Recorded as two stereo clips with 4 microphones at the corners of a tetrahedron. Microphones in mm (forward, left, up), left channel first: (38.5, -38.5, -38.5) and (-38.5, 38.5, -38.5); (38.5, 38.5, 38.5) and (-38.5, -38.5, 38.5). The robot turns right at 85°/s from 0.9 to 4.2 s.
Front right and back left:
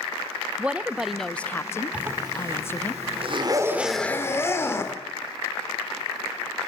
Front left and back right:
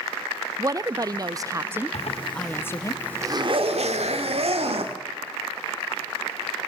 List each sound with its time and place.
0.6 s a woman speaking: 155° right, 0.5 m; by 2.9 s 20° left, 0.5 m
1.9 s a zipper: 55° left, 2.0 m; by 5.0 s 110° right, 2.0 m